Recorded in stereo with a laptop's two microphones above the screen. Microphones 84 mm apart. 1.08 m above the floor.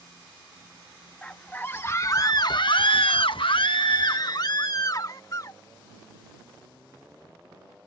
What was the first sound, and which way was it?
A scream, 15° left (ahead or behind).